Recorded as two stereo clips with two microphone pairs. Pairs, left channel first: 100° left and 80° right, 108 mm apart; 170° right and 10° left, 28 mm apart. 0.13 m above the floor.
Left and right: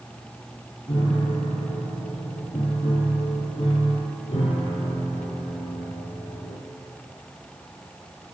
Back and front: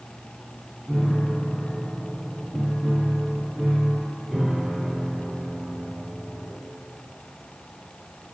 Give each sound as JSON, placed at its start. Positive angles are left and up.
{"t": 0.9, "sound": "a piano", "azimuth_deg": 75, "distance_m": 3.0}